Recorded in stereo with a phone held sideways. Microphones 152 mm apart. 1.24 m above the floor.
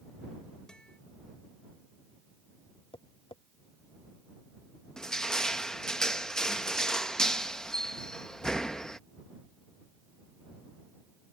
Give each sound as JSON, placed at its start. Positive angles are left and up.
{"t": 0.7, "sound": "a guitar", "side_deg": 5}
{"t": 2.9, "sound": "tapping", "side_deg": 35}
{"t": 5.0, "sound": "crushing", "side_deg": 5}